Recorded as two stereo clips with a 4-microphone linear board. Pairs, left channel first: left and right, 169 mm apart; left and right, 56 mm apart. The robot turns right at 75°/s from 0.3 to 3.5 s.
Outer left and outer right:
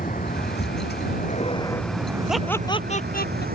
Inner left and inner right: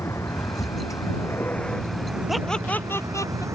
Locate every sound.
0.0 s a vehicle: 55° left; by 3.6 s 65° right
2.3 s laughter: 5° right (ahead or behind); by 3.5 s 85° left